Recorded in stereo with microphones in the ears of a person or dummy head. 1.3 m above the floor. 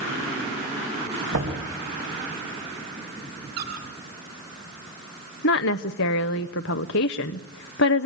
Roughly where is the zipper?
No zipper in this recording.